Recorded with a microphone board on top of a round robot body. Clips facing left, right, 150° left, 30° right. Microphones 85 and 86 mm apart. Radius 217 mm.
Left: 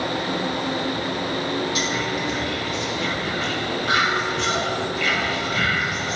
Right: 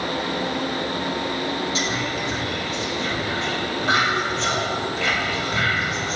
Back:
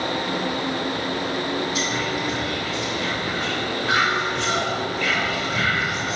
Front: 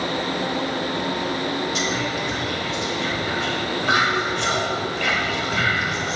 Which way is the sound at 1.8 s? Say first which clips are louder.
Left 1 dB, even; 30° right.